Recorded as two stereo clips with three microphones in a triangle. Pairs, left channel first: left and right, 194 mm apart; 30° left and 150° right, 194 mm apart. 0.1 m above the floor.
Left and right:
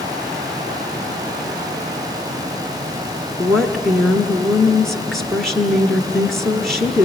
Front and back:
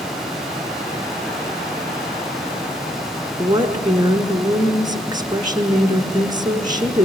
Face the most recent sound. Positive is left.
turn(degrees=175)